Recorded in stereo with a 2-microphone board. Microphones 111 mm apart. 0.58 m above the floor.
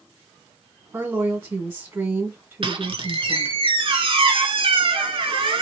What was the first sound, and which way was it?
A woman speaking, 25° right (ahead or behind).